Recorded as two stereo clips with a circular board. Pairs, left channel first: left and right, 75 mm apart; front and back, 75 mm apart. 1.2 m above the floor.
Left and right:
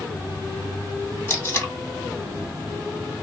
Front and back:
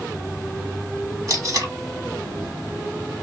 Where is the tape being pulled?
145° left, 1.9 m.